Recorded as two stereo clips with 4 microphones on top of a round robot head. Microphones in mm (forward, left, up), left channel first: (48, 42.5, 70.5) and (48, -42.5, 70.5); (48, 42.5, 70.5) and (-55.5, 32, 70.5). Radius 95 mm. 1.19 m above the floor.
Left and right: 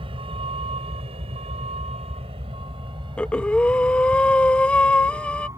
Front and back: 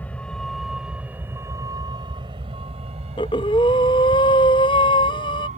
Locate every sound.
0.0 s a vehicle: 70° right; by 5.6 s 155° right
3.2 s breathing: 20° left